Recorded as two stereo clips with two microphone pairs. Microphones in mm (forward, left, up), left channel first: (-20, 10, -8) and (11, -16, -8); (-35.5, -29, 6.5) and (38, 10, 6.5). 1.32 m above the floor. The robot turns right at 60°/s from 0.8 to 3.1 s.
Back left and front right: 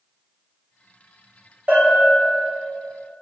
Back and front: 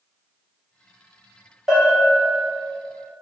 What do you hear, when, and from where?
1.7 s a bell: 65° right, 1.0 m; by 2.1 s 35° right, 1.0 m